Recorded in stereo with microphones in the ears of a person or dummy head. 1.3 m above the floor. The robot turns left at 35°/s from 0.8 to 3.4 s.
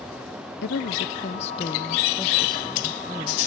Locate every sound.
0.6 s a woman speaking: 60° left, 0.7 m; by 3.4 s 30° right, 0.7 m